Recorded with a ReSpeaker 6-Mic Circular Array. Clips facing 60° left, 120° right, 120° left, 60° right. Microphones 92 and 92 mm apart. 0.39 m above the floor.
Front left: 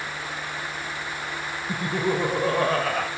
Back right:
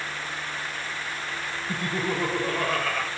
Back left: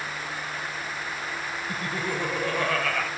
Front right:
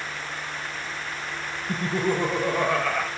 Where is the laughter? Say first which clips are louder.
Front left 4 dB, front right 7 dB; 10° right, 1.3 m; by 3.1 s 20° left, 1.9 m.